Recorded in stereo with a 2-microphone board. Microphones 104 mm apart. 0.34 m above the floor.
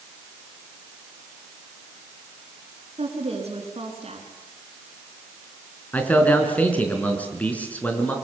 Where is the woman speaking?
75° right (ahead or behind), 5 m.